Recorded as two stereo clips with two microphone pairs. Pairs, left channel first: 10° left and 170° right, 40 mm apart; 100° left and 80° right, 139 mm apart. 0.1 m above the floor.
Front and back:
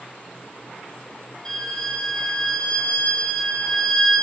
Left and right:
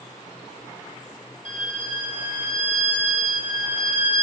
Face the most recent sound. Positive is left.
turn(degrees=-60)